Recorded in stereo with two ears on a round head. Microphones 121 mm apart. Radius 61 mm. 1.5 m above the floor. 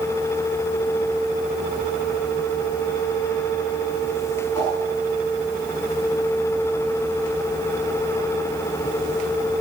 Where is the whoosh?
25° left (ahead or behind), 6.5 m.